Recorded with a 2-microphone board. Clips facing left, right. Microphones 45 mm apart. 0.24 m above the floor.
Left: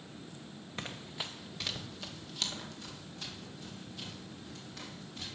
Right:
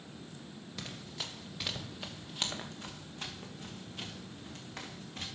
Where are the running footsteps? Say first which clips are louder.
Left 2 dB; 30° left (ahead or behind), 1.3 m; by 5.3 s 55° right (ahead or behind), 4.5 m.